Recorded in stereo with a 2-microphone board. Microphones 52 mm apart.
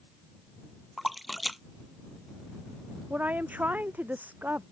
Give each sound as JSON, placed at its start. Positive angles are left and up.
{"t": 1.0, "sound": "a splash", "side_deg": 0}
{"t": 3.1, "sound": "a woman speaking", "side_deg": -35}